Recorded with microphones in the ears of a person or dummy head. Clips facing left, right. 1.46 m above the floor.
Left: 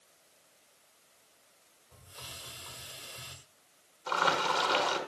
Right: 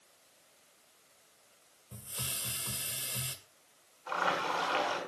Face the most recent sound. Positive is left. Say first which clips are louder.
# left 3 dB
turn(degrees=65)  # may be behind; listen again after turning